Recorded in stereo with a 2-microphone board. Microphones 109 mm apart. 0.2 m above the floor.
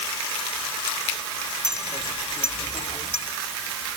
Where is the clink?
85° left.